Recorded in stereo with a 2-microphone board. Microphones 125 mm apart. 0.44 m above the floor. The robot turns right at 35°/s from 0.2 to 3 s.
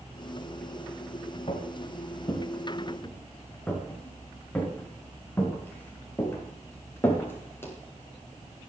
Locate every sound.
1.5 s footsteps: 55° left (ahead or behind), 5 m; by 7.7 s 20° left (ahead or behind), 8 m